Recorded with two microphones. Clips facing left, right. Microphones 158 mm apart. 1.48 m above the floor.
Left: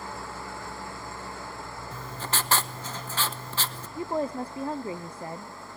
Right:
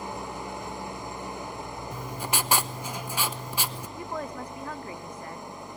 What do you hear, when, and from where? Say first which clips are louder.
0.0 s an engine running: right 3 dB; 20° right (ahead or behind), 0.7 m
1.9 s writing: right 1 dB; 10° right (ahead or behind), 0.8 m
4.0 s a woman speaking: left 7 dB; 30° left (ahead or behind), 0.6 m